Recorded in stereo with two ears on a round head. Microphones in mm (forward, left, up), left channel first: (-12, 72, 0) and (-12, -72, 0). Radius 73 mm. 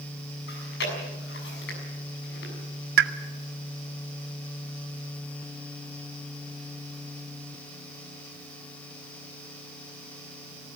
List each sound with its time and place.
0.5 s chewing: 75° left (ahead or behind), 7 m
3.0 s a pop: 70° right (ahead or behind), 1.5 m